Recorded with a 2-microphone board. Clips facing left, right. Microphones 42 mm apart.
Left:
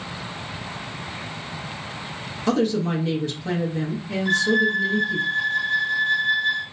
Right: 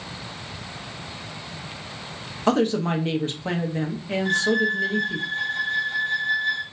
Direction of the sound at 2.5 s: 40° right (ahead or behind).